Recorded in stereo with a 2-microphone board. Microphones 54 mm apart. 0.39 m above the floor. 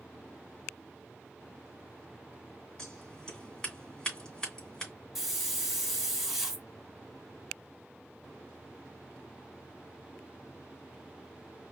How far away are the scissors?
About 3 m.